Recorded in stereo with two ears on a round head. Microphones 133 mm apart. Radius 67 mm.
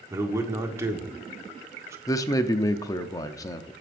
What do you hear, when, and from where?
0.1 s a man speaking: 20° right (ahead or behind), 1.4 m
2.1 s a man speaking: 25° left (ahead or behind), 0.7 m